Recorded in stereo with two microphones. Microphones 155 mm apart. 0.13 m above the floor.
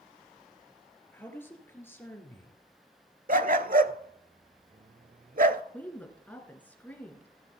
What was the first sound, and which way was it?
A man speaking, 15° left (ahead or behind).